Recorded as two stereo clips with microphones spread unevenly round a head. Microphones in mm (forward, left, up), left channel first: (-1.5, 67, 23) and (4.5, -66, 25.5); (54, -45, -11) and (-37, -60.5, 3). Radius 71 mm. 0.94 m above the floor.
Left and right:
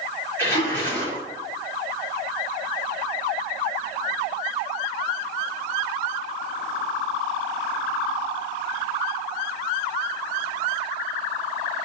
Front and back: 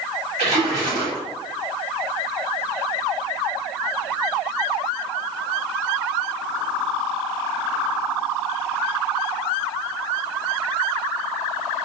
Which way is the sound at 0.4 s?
165° left.